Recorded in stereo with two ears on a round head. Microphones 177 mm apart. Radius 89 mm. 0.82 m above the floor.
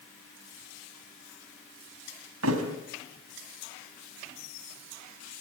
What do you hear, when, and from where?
2.4 s a thud: 75° right (ahead or behind), 3.5 m